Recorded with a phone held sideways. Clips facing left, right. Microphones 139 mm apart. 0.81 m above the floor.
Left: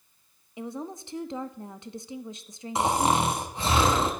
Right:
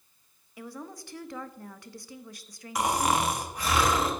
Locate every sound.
0.6 s a woman speaking: 20° left (ahead or behind), 0.7 m
2.8 s snoring: 25° left (ahead or behind), 1.4 m